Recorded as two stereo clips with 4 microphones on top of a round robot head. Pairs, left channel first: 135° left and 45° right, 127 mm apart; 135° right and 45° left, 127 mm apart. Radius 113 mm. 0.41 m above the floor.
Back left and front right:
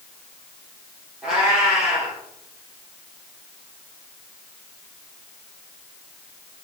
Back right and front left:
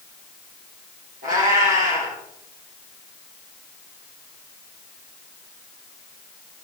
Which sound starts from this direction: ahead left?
A cat meowing, at 1.2 s.